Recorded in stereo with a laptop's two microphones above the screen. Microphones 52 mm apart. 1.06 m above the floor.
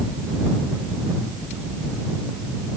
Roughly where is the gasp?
No gasp in this recording.